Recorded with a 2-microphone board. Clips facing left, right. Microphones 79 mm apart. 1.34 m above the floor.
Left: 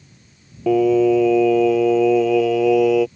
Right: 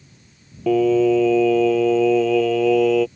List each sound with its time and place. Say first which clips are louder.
0.7 s singing: left 1 dB; 5° left (ahead or behind)